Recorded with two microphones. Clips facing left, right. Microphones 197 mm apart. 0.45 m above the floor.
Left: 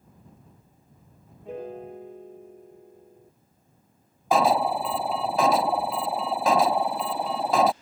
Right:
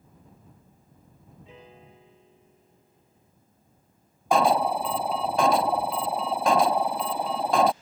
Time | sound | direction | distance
1.4 | a piano | 55° left (ahead or behind) | ?
4.3 | an alarm | centre (ahead or behind) | ?